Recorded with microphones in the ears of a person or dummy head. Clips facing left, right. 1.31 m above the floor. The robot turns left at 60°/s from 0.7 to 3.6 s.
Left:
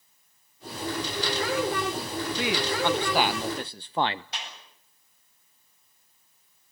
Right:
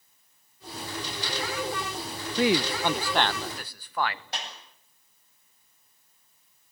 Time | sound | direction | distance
2.4 | a man speaking | 140° right | 0.5 m
4.3 | a clap | 45° right (ahead or behind) | 8 m